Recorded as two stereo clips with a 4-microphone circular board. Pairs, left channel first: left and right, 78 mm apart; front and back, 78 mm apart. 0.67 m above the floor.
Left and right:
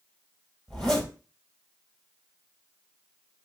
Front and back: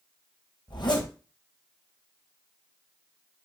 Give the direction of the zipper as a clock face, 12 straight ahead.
12 o'clock.